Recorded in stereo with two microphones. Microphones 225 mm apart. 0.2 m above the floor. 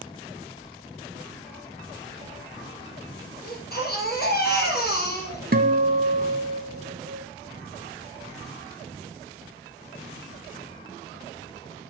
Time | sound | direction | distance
3.4 | a baby crying | 45° left (ahead or behind) | 3.5 m
5.5 | a guitar | 45° right (ahead or behind) | 0.8 m